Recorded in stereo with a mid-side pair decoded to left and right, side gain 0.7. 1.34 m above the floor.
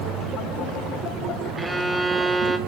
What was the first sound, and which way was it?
A violin, 10° right.